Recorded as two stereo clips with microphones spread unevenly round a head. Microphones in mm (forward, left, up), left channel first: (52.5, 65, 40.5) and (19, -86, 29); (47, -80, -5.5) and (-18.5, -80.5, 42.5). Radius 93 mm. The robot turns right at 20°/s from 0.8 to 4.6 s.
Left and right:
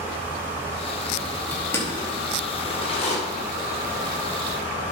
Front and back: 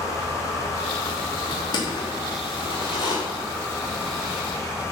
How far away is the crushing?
About 4.5 m.